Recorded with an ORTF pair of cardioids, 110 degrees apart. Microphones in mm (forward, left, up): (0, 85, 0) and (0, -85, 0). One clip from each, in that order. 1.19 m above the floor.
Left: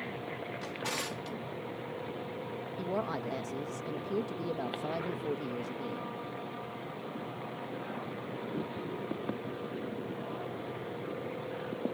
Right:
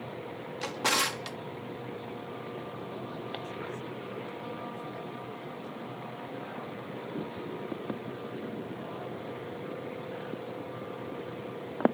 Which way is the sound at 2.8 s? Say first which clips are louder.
Left 5 dB; 70° left.